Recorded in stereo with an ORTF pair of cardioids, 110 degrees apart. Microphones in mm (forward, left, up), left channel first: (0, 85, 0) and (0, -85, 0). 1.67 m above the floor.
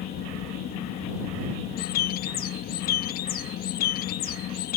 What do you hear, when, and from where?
0.0 s a fan: 70° left
1.8 s a bird: 70° left